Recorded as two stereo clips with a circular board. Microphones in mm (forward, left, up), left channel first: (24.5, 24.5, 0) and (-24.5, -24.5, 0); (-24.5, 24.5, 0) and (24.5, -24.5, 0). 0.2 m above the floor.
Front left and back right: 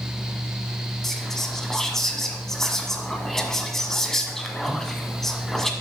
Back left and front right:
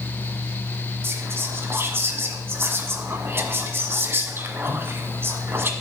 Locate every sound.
1.0 s whispering: 35° right, 1.3 m